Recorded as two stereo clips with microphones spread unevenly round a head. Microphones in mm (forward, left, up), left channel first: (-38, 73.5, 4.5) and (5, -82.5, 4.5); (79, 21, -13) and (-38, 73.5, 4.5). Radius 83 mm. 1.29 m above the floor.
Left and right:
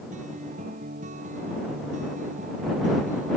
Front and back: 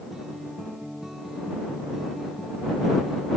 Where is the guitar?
115° right.